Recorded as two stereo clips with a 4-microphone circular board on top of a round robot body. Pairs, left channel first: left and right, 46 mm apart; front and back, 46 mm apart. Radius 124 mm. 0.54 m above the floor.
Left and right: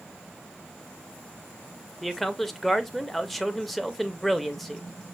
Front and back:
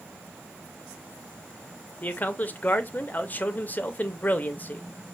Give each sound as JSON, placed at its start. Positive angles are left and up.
{"t": 2.0, "sound": "a man speaking", "azimuth_deg": 5, "distance_m": 0.9}